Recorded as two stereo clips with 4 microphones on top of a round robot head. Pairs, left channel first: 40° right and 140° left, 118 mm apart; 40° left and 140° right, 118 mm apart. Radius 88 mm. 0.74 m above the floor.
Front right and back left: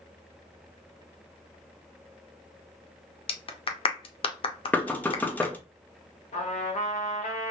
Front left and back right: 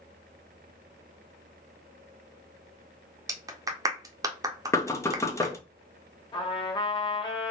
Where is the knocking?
20° left, 0.7 m.